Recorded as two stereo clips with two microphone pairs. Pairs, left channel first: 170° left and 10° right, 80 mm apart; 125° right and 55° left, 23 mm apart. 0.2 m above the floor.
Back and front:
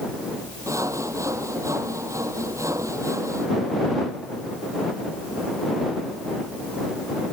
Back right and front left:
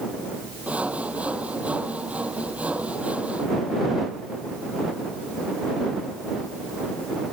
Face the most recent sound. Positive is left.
turn(degrees=40)